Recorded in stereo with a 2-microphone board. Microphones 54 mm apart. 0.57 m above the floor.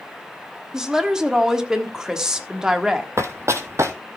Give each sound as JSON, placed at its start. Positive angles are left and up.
{"t": 0.7, "sound": "a woman speaking", "side_deg": -10, "distance_m": 1.3}
{"t": 3.2, "sound": "running footsteps", "side_deg": -60, "distance_m": 1.3}